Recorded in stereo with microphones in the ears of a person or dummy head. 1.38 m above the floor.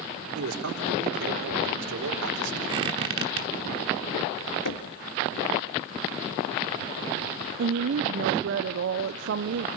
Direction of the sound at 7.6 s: 60° right (ahead or behind).